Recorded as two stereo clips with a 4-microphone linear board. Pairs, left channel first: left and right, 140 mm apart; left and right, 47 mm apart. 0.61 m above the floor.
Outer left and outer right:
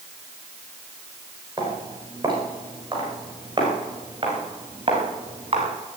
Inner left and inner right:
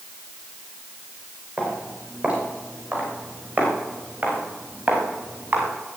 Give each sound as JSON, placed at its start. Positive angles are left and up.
{"t": 1.6, "sound": "footsteps", "side_deg": -25, "distance_m": 8.5}